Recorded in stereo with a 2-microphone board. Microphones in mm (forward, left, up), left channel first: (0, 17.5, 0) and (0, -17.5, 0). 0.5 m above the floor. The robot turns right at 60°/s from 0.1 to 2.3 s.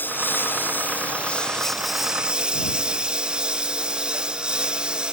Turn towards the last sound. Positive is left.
turn(degrees=-155)